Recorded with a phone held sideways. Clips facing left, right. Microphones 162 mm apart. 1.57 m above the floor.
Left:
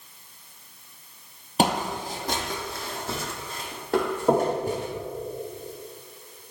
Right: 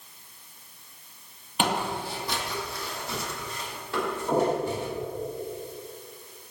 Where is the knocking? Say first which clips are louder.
Left 3 dB; 70° left (ahead or behind), 5.5 m.